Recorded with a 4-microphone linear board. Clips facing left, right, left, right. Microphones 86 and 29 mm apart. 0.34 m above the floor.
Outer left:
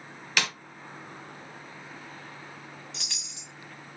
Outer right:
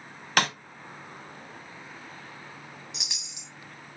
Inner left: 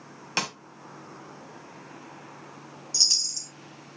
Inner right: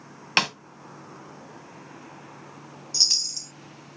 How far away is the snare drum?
About 1.1 m.